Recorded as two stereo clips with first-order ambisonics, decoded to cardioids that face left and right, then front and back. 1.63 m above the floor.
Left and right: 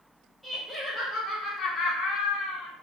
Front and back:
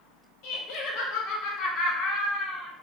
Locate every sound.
0.4 s laughter: 5° left, 1.1 m; by 2.7 s 70° left, 1.2 m